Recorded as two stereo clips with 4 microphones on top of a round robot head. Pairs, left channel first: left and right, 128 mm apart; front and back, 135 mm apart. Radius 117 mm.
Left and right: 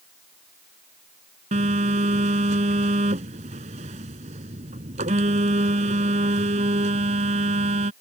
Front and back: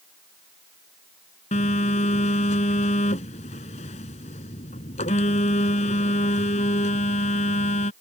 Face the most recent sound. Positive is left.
turn(degrees=-45)